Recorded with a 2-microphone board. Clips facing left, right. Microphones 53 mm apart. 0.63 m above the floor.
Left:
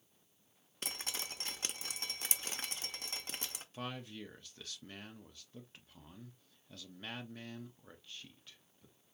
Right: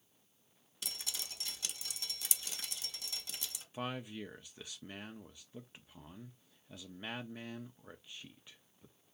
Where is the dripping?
40° left (ahead or behind), 0.8 m.